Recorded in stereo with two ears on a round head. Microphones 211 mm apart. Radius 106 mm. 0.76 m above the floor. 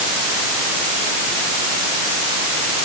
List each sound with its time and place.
Only background noise.